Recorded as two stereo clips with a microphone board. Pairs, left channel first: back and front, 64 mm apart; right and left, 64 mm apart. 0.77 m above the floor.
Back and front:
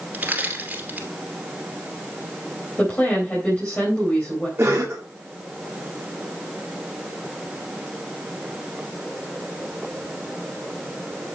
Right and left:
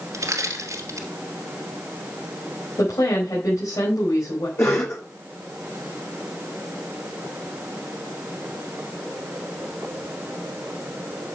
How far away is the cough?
About 2 m.